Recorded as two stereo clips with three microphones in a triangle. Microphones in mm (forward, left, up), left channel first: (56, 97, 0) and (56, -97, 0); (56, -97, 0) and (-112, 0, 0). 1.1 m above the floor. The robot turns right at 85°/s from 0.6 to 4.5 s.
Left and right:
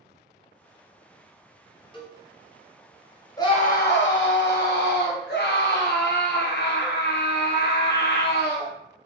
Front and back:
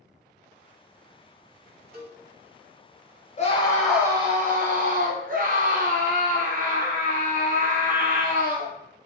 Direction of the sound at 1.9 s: 145° left.